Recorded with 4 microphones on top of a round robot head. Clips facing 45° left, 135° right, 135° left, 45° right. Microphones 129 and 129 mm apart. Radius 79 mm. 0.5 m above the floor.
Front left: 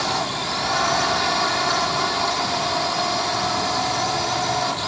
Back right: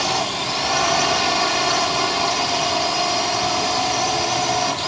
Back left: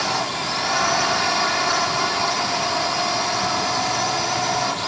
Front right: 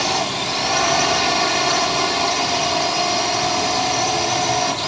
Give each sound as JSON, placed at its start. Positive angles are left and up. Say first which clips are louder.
{"t": 0.0, "sound": "a drone", "louder": "back right 2 dB, front right 2 dB", "azimuth_deg": -80}